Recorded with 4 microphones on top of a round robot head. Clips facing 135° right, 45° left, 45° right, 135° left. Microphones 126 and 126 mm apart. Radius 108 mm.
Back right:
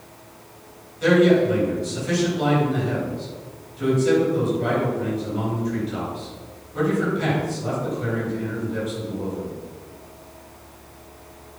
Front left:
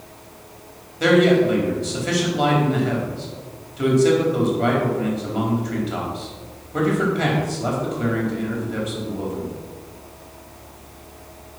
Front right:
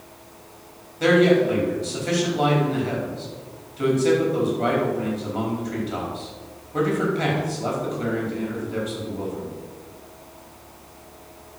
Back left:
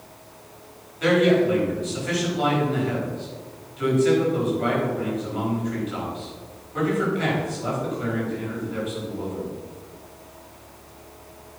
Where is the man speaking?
15° left, 4.5 m.